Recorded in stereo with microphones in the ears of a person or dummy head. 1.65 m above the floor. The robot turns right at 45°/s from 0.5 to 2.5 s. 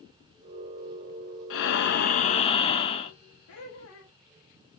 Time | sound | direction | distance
1.5 | breathing | 100° left | 0.6 m
3.5 | laughter | 70° left (ahead or behind) | 1.9 m